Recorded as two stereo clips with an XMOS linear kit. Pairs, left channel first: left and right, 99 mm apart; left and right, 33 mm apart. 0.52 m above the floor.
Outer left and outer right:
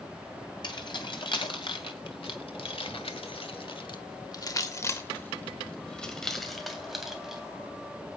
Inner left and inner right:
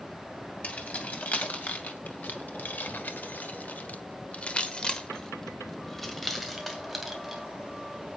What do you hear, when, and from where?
0.6 s keys jangling: 50° left (ahead or behind), 2.5 m; by 7.4 s 5° right (ahead or behind), 2.5 m